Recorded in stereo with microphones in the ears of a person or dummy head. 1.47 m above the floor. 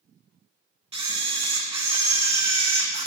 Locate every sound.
0.9 s a camera shutter: 30° right (ahead or behind), 0.8 m